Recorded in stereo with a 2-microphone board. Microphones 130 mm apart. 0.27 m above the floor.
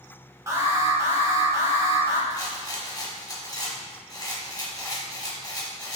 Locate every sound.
0.5 s an alarm: 25° right (ahead or behind), 0.9 m
2.3 s a rattle: 30° left (ahead or behind), 0.8 m